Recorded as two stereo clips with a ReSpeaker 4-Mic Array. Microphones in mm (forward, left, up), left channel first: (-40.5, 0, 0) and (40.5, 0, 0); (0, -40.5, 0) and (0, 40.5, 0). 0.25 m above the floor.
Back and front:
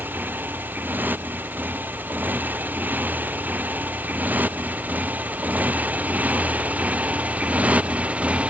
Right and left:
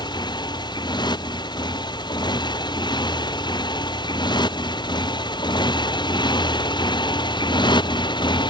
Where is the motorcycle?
65° right; by 8.5 s 75° right.